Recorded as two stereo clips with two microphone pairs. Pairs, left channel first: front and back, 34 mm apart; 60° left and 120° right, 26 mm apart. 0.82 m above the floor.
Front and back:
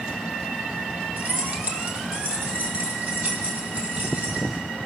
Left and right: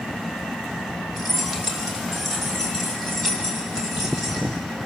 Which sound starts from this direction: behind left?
Keys jangling, at 1.2 s.